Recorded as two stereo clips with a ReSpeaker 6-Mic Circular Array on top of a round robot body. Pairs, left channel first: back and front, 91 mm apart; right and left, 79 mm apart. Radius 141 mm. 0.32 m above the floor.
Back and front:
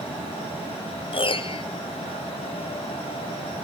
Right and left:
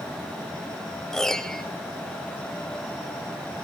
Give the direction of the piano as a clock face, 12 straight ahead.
6 o'clock.